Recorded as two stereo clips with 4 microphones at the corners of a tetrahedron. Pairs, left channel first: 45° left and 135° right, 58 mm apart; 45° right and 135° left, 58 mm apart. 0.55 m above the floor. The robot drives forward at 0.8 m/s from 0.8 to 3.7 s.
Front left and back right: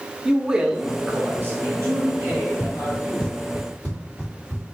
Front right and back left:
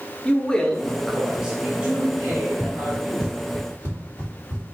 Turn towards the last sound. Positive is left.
turn(degrees=155)